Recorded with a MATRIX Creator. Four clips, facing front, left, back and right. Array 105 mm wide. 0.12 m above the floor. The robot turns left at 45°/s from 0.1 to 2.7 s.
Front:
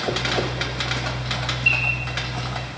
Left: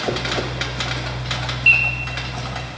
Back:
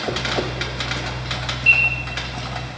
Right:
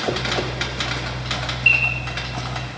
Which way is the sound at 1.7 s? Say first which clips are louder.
Left 2 dB, back 5 dB; 110° left.